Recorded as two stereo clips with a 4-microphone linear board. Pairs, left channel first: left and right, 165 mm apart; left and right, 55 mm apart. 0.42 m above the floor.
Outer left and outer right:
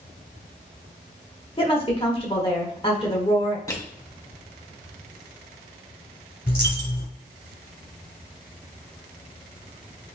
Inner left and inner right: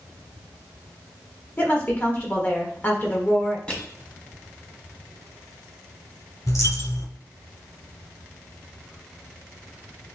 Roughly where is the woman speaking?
Left.